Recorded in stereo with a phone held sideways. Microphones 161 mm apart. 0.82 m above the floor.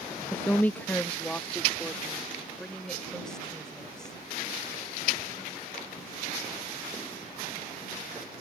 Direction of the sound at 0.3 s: 10° left (ahead or behind).